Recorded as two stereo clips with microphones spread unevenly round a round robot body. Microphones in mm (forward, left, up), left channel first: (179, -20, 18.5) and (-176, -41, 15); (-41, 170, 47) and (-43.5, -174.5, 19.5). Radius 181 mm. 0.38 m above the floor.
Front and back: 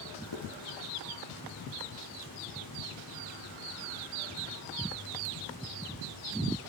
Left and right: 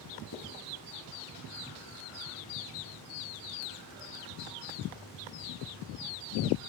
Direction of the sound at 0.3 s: 40° left.